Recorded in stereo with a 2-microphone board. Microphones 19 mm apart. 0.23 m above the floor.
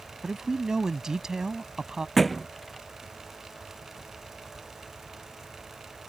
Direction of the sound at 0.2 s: 35° right (ahead or behind).